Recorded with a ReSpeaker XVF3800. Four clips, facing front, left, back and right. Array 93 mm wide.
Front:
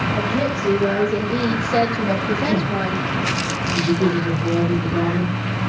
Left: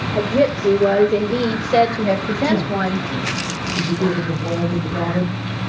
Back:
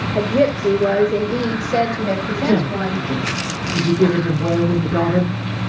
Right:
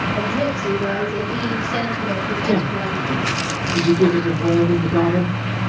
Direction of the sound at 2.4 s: 155° right.